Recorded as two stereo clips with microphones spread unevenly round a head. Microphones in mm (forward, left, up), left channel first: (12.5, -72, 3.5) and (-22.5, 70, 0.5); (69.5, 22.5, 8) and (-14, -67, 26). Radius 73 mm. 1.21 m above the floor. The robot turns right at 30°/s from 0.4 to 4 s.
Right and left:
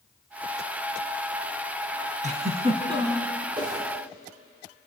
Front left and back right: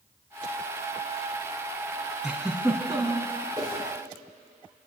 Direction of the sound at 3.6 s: 160° left.